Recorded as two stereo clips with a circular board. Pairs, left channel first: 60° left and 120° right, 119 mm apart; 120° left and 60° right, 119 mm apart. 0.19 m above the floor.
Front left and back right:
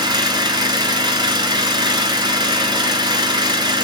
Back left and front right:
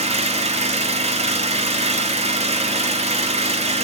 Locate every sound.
0.0 s an engine running: 70° right, 0.9 m